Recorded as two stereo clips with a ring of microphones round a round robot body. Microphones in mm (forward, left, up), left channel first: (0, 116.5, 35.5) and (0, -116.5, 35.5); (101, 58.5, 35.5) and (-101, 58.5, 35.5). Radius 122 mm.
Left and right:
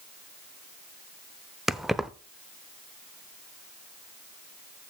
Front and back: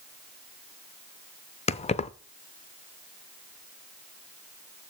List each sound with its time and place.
1.7 s keys jangling: 5° right, 0.6 m